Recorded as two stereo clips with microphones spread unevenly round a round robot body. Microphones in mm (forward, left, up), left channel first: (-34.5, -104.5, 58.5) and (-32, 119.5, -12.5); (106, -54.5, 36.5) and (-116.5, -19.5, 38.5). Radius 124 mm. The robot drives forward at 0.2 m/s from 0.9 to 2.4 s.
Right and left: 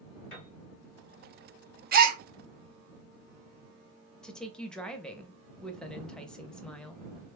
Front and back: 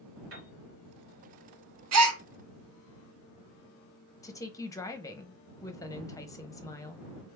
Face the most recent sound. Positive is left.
turn(degrees=40)